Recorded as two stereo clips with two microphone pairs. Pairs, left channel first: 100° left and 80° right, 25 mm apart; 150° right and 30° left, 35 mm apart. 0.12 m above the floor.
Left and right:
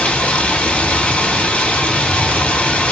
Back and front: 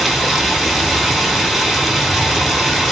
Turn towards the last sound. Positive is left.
turn(degrees=125)